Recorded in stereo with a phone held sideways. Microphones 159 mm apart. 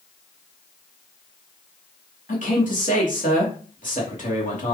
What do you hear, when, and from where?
2.3 s a man speaking: 60° left (ahead or behind), 2.5 m